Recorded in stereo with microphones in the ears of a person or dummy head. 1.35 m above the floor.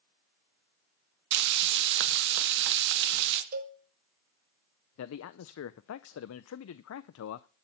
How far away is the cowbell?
About 1.2 m.